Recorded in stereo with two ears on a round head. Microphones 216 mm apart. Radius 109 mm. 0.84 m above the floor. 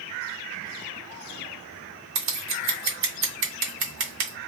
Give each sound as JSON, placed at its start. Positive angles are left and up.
{"t": 2.1, "sound": "scissors", "side_deg": -55, "distance_m": 0.9}